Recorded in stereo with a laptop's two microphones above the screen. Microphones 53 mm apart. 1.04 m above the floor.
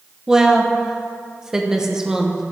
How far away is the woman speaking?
About 0.8 m.